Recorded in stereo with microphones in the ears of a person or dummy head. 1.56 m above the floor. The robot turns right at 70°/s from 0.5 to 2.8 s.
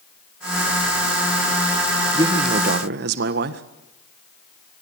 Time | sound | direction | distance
2.1 | a man speaking | 160° right | 1.7 m